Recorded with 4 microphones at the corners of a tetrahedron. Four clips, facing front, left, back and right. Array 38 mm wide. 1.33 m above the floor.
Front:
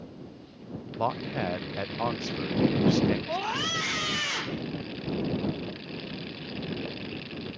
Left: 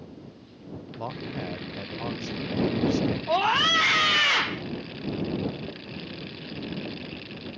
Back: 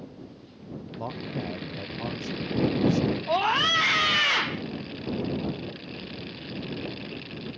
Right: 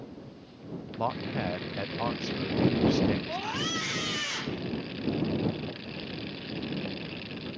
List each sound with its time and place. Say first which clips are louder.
1.0 s a man speaking: right 3 dB, front 5 dB; 25° right
3.3 s a scream: left 10 dB, back 7 dB; 130° left